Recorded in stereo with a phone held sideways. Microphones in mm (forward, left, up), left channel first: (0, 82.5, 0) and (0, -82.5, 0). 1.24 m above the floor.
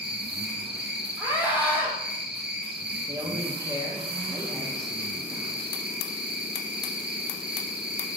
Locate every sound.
0.0 s an insect: 80° right, 1.5 m
1.2 s a scream: 10° right (ahead or behind), 3 m
3.1 s a man speaking: 20° right (ahead or behind), 1.5 m